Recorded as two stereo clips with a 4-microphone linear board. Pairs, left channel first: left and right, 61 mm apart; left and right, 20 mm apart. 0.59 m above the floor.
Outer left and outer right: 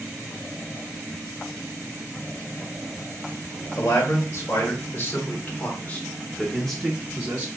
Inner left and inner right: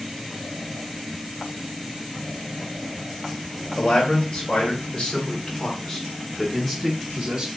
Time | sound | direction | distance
3.8 | a man speaking | 60° left (ahead or behind) | 2.5 m